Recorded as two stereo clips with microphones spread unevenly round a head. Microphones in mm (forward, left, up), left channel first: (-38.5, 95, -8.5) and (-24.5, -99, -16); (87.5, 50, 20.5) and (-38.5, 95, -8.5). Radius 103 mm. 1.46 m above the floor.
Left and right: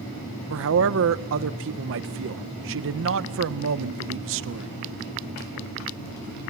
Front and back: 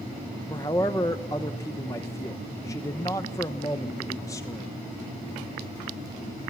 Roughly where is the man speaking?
Right.